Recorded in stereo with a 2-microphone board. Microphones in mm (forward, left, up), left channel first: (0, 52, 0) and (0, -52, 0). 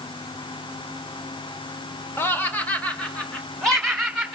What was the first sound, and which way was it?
Laughter, 25° left (ahead or behind).